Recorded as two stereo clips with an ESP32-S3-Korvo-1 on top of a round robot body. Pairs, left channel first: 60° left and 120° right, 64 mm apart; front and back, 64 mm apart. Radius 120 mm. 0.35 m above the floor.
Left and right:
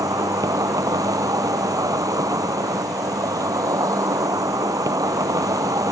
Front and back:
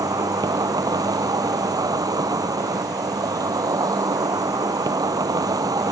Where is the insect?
155° right.